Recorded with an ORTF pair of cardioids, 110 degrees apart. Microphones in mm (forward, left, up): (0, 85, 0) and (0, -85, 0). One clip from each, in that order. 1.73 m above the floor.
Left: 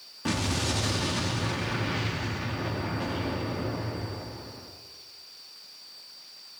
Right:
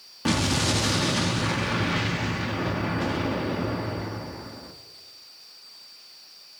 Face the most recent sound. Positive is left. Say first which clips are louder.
# right 5 dB
turn(degrees=-30)